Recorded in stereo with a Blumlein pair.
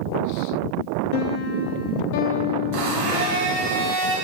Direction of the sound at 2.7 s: 45° right.